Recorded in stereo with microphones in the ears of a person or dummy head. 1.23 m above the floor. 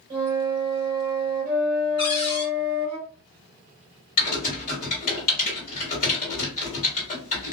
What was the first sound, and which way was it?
A flute, 20° right (ahead or behind).